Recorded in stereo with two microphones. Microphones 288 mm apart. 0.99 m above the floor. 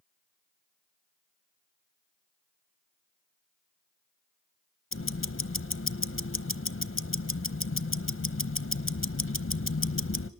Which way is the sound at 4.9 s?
45° left (ahead or behind).